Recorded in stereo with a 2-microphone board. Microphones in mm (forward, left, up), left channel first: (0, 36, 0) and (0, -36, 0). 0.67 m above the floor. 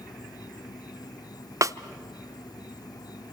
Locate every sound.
0.0 s an insect: 75° left (ahead or behind), 0.7 m
1.6 s a snare drum: 50° right (ahead or behind), 0.6 m